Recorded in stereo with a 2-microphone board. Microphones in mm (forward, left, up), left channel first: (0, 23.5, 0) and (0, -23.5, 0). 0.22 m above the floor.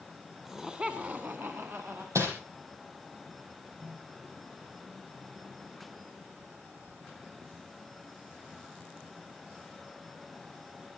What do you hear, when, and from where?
0.5 s laughter: 5° right (ahead or behind), 1.7 m; by 2.0 s 65° right (ahead or behind), 2 m
2.1 s crumpling: 75° right (ahead or behind), 4 m
3.8 s a microwave: 5° right (ahead or behind), 9.5 m